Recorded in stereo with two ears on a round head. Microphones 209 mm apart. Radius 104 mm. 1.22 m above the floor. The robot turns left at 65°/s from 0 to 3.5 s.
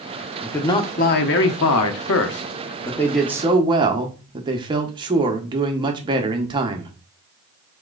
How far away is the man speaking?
About 0.8 m.